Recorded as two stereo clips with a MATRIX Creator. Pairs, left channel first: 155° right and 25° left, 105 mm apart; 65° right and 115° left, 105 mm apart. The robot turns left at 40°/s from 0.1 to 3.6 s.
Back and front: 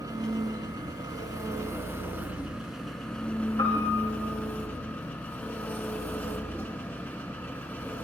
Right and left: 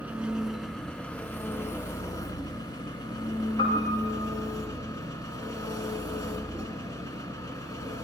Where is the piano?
105° right, 9.5 m; by 4.1 s 110° right, 9.5 m.